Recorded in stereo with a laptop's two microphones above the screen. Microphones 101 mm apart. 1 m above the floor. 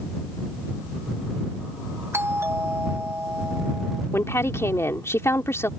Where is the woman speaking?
25° left (ahead or behind).